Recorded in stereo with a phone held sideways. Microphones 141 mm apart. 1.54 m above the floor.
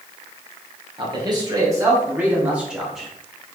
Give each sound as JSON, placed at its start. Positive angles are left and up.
{"t": 1.0, "sound": "a man speaking", "side_deg": -35, "distance_m": 1.6}